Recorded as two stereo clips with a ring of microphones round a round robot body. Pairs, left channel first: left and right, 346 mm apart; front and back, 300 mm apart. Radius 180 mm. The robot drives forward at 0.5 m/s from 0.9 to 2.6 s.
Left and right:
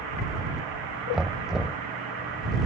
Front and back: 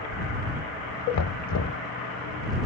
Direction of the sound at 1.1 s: Straight ahead.